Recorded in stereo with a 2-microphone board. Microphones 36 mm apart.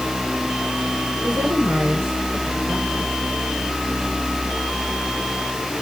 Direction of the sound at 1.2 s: 75° right (ahead or behind).